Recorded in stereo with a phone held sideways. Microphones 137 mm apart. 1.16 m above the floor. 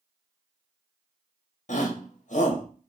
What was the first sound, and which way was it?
A shout, 60° left (ahead or behind).